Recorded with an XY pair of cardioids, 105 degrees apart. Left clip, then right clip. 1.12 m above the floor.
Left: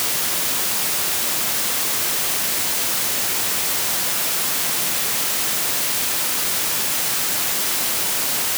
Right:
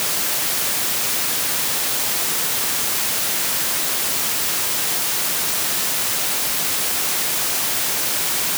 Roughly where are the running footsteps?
I don't hear running footsteps.